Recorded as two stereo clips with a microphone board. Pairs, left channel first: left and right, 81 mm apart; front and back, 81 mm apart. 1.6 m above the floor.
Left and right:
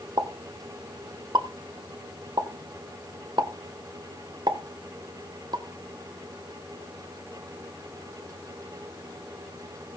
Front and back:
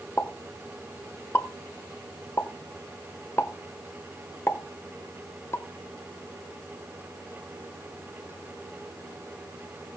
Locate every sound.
0.2 s a pop: 60° right, 1.5 m